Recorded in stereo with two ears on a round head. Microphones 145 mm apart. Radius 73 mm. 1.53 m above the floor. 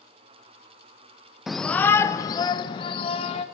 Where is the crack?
I don't hear a crack.